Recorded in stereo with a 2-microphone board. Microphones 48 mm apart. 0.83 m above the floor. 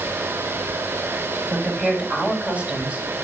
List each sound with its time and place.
1.5 s a woman speaking: 30° right (ahead or behind), 4 m; by 3.0 s 20° right (ahead or behind), 4 m